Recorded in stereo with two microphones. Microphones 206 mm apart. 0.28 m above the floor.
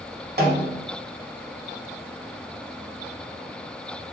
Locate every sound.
0.4 s a snare drum: 55° right (ahead or behind), 0.7 m